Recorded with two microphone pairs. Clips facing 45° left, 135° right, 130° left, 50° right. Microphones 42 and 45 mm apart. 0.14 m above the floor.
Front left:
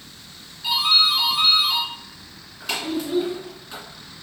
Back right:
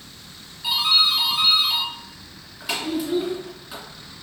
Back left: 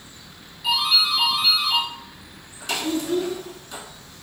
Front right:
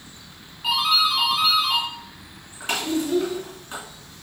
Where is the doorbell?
55° right, 1.7 m.